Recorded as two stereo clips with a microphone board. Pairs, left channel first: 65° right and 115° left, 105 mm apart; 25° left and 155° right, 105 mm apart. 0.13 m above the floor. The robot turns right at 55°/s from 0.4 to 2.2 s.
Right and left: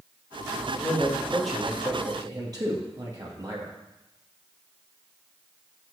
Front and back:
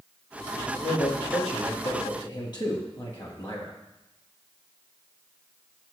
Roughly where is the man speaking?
Ahead.